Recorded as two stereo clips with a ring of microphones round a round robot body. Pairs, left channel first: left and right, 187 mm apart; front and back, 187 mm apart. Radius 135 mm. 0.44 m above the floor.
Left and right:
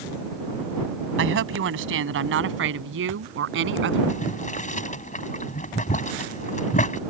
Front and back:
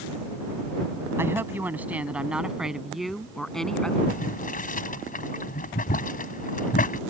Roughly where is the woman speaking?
Right.